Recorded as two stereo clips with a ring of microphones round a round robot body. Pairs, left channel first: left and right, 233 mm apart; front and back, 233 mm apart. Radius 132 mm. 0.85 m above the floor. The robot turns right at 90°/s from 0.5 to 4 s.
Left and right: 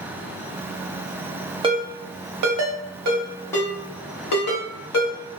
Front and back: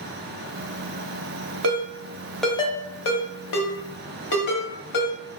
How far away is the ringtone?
About 0.9 m.